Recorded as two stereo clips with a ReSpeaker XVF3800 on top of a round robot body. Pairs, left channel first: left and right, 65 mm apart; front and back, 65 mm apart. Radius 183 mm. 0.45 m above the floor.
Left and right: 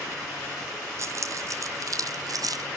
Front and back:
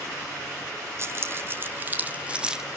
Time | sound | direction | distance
1.0 | keys jangling | 130° right | 2.0 m